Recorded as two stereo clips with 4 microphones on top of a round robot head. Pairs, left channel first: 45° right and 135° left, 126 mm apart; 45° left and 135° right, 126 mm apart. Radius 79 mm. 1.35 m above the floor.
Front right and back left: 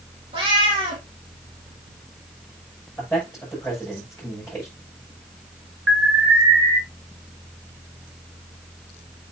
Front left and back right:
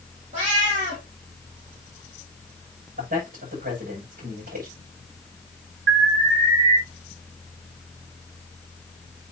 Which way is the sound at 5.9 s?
145° right.